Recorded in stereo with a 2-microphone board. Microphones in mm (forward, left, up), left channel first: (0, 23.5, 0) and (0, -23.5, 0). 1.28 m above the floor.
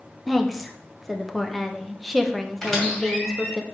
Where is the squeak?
10° left (ahead or behind), 2.5 m.